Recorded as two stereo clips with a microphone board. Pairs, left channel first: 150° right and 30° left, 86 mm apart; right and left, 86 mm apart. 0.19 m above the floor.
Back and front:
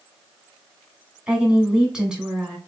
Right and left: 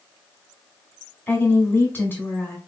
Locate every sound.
1.3 s a woman speaking: 45° right, 1.5 m